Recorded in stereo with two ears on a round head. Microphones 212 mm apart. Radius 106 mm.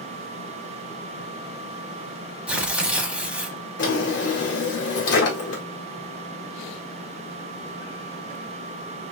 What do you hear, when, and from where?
2.5 s tearing paper: 5° right (ahead or behind), 0.7 m
3.8 s a drawer: 50° left (ahead or behind), 1.5 m